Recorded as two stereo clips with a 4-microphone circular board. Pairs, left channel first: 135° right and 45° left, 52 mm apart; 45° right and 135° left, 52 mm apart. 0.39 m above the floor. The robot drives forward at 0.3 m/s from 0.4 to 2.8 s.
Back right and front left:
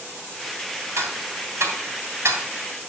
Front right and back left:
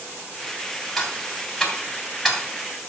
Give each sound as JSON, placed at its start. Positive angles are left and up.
{"t": 1.0, "sound": "ticking", "azimuth_deg": 40, "distance_m": 3.0}